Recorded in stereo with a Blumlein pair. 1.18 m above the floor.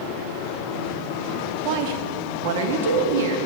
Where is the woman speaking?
45° right, 0.9 m; by 3.4 s 60° right, 2.0 m.